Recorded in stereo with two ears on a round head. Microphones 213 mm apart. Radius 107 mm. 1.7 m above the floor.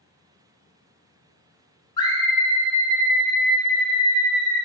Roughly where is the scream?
Centre.